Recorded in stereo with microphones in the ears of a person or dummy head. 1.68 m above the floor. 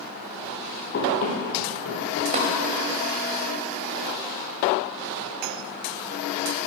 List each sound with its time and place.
0.9 s running footsteps: 45° left (ahead or behind), 2.5 m; by 2.2 s 50° left (ahead or behind), 2.5 m
2.3 s tapping: 40° right (ahead or behind), 2 m